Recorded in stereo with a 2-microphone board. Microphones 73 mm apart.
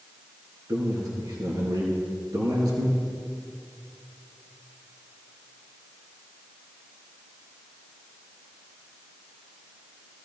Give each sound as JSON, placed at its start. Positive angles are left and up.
{"t": 0.7, "sound": "a man speaking", "side_deg": -60, "distance_m": 3.0}